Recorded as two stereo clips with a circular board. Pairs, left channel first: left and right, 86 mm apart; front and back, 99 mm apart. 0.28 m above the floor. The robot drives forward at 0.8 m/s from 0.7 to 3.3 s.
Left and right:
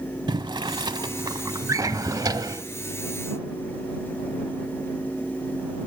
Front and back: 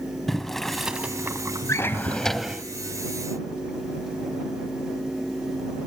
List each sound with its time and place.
0.3 s boiling: 85° right, 0.9 m; by 2.4 s 145° right, 1.6 m
1.7 s a drawer: 50° right, 1.1 m; by 2.6 s 110° right, 0.9 m